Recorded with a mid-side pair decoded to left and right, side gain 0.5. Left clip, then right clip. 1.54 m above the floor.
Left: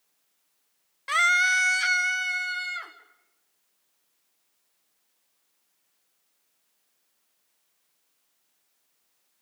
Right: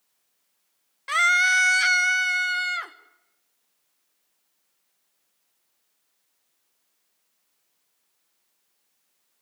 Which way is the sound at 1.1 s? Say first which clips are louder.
Right 2 dB; straight ahead.